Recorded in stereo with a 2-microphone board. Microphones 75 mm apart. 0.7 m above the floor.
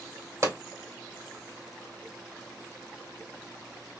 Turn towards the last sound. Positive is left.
turn(degrees=-40)  # may be behind; listen again after turning